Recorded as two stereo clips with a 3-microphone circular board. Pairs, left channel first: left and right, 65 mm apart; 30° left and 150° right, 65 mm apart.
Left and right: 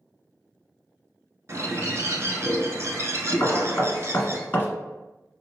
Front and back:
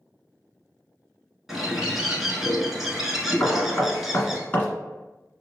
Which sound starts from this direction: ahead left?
Knocking, at 3.4 s.